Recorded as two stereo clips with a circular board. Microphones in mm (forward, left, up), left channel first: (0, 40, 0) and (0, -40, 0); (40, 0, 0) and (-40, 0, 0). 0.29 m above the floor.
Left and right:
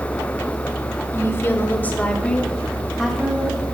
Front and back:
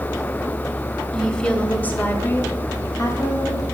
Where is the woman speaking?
80° left, 1.7 m; by 3.6 s 15° right, 2 m.